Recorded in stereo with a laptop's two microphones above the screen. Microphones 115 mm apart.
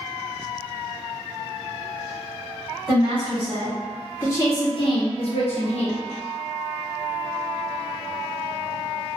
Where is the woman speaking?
20° right (ahead or behind), 1.0 m; by 6.0 s 65° left (ahead or behind), 0.9 m.